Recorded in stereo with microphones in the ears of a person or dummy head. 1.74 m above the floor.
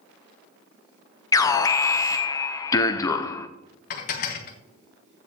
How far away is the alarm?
About 0.7 m.